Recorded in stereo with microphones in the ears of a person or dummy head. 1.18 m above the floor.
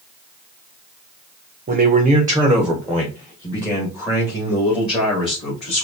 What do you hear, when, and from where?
1.7 s a man speaking: 40° right (ahead or behind), 0.7 m; by 5.8 s 30° left (ahead or behind), 2.5 m